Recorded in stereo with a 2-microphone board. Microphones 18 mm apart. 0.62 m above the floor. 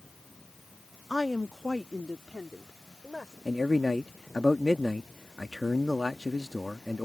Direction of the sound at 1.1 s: 15° right (ahead or behind).